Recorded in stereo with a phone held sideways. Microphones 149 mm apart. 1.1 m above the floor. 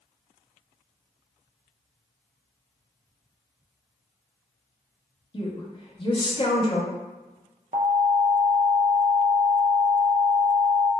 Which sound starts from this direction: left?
A woman speaking, at 5.3 s.